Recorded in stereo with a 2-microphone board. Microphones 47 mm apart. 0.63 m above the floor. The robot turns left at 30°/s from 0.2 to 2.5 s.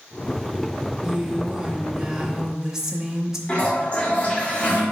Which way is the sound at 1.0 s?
20° right (ahead or behind).